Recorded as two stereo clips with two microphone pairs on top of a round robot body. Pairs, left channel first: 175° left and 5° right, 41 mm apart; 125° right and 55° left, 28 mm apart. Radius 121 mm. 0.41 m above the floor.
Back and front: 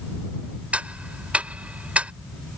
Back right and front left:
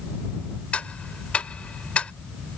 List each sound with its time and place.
0.7 s ticking: 65° right